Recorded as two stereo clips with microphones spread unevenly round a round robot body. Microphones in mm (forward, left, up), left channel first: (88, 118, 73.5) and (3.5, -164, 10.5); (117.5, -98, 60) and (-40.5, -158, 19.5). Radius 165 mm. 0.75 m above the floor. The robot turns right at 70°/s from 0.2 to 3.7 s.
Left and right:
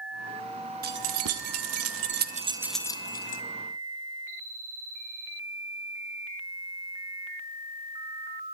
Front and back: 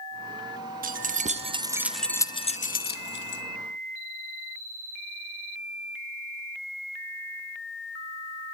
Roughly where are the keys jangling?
Behind right.